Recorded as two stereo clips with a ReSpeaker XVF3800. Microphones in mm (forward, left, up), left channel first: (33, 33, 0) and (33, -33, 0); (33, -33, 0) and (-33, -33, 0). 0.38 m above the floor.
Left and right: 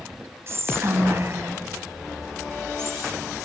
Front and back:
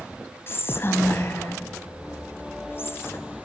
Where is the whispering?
50° right, 2.5 m.